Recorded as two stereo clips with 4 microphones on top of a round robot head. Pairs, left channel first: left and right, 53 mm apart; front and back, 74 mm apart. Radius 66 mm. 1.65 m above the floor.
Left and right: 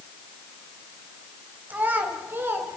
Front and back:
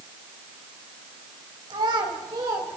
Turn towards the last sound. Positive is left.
turn(degrees=-130)